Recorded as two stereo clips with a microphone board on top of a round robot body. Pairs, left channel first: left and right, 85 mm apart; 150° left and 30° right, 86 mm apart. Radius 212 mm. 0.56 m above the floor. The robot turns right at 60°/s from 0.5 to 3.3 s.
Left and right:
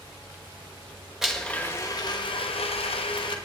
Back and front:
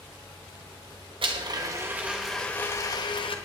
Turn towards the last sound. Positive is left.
turn(degrees=120)